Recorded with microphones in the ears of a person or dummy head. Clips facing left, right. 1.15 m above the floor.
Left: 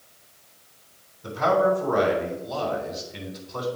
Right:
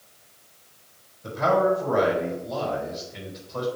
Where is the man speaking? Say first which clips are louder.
Even; 65° left (ahead or behind), 3 m.